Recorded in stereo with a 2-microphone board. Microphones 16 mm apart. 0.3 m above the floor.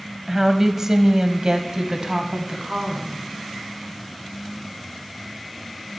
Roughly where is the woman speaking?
Right.